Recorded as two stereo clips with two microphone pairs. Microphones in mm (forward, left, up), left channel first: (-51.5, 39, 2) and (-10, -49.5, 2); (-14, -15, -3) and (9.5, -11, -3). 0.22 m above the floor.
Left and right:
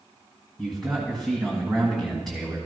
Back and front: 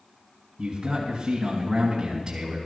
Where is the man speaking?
30° left, 1.6 m.